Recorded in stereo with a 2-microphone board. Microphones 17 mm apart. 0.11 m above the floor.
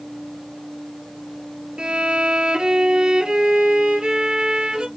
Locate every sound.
1.8 s a violin: 50° right (ahead or behind), 1.2 m